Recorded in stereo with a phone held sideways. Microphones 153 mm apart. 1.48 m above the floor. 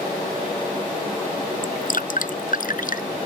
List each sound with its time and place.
1.6 s dripping: 65° left (ahead or behind)